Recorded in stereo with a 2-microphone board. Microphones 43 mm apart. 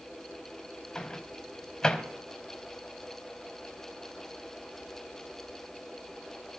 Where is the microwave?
20° left (ahead or behind), 1.3 m.